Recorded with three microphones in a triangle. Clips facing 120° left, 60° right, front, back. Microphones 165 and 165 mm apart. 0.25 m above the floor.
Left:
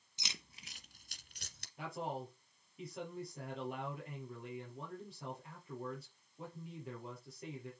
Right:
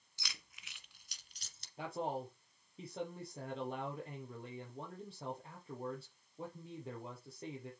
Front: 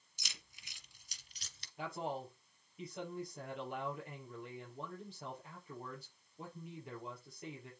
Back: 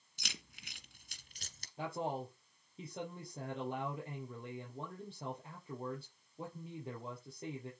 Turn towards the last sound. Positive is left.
turn(degrees=-120)